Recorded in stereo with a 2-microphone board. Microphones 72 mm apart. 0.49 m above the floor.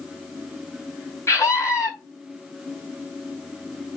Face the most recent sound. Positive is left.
turn(degrees=40)  # may be behind; listen again after turning